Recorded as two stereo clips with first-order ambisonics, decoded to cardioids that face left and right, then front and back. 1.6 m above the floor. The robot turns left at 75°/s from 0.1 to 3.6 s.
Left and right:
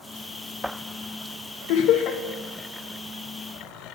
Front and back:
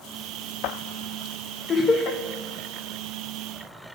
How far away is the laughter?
About 0.9 m.